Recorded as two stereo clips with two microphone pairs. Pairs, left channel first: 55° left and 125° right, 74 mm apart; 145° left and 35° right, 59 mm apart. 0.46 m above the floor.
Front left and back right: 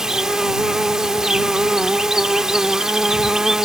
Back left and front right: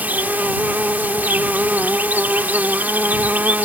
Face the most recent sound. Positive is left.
turn(degrees=-45)